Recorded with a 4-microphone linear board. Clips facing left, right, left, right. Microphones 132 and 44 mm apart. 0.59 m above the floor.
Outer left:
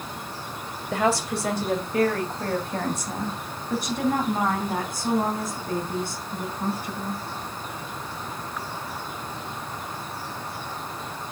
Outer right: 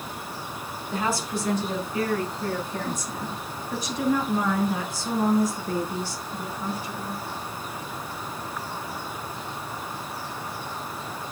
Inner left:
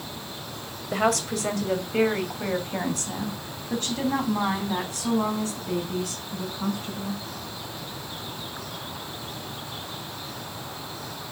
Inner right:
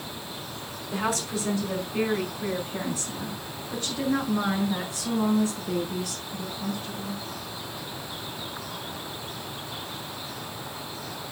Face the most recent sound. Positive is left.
turn(degrees=50)  # may be behind; listen again after turning